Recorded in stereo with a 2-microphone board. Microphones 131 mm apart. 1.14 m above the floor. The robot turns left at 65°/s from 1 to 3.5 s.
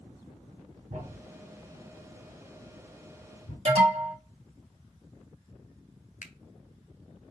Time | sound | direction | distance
0.9 | a thud | 60° right (ahead or behind) | 2 m
3.6 | an alarm | 55° right (ahead or behind) | 1.6 m
6.2 | a finger snap | 70° left (ahead or behind) | 0.5 m